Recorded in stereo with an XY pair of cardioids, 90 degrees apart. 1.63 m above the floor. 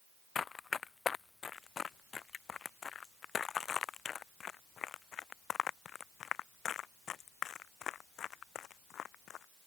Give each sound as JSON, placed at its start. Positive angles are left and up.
{"t": 0.3, "sound": "running footsteps", "azimuth_deg": 45}